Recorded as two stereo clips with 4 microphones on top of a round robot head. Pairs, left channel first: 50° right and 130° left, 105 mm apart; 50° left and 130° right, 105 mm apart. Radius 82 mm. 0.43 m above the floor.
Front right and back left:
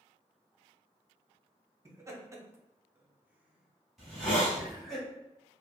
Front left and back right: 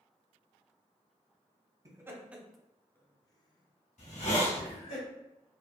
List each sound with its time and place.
1.9 s laughter: straight behind, 0.9 m; by 5.0 s 40° left, 1.6 m
4.0 s a hiss: 45° left, 1.3 m